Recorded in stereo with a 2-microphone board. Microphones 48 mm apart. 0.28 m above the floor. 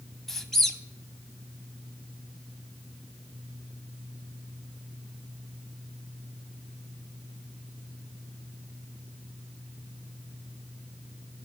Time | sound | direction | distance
0.3 | a squeak | 5° left (ahead or behind) | 0.9 m